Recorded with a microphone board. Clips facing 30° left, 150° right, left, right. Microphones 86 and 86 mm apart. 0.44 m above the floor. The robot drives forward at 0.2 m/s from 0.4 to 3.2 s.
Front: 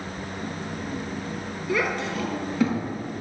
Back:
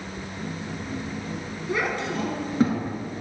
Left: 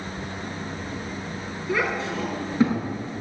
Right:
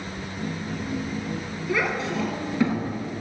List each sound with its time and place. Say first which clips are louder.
1.7 s a child speaking: front 1 dB, even; 160° left, 4 m; by 2.8 s 165° left, 4.5 m